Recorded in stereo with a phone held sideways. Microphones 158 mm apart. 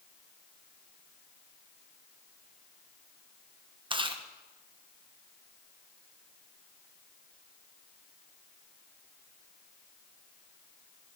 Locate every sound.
3.9 s chewing: 30° right (ahead or behind), 0.7 m